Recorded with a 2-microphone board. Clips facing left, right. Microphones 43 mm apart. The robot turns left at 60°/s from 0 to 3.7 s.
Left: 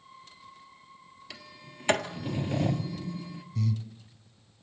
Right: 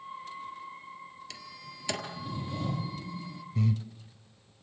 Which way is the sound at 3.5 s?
25° right (ahead or behind).